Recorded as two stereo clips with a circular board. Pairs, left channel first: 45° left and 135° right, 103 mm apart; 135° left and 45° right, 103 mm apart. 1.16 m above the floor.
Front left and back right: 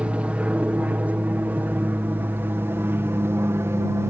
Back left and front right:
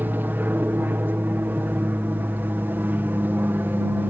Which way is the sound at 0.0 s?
75° right.